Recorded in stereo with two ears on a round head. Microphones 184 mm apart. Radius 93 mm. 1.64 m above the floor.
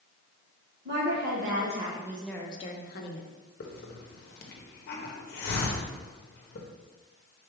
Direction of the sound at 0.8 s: 55° right (ahead or behind).